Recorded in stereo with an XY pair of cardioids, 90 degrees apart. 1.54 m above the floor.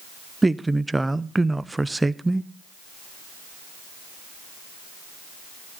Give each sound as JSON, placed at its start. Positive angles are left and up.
{"t": 0.4, "sound": "a man speaking", "azimuth_deg": -15, "distance_m": 0.7}